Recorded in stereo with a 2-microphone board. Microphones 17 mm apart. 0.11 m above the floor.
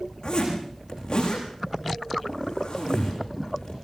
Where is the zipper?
60° left (ahead or behind), 9 m.